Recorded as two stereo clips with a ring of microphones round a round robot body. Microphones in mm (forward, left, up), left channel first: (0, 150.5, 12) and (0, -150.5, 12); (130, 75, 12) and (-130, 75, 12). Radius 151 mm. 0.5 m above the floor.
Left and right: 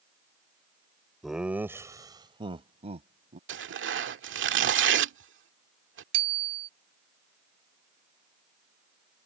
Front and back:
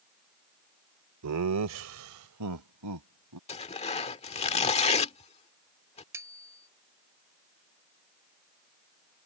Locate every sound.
1.2 s laughter: straight behind; by 3.4 s 155° right
3.5 s tearing paper: 60° right
6.1 s a bicycle bell: 100° right